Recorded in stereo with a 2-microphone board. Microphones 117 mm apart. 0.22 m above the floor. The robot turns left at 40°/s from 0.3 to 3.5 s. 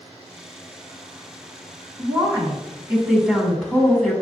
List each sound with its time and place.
2.0 s a woman speaking: 125° right, 1.5 m; by 4.1 s 175° left, 1.5 m